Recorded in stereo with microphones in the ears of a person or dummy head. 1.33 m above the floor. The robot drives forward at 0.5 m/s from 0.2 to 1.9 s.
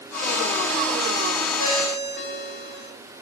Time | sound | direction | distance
1.6 | a ringtone | 65° right (ahead or behind) | 4.5 m